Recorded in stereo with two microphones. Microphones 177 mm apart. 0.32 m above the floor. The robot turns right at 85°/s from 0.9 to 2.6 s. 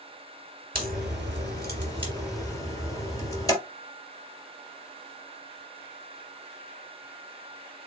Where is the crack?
55° right (ahead or behind), 3 m; by 3.5 s 20° left (ahead or behind), 3 m.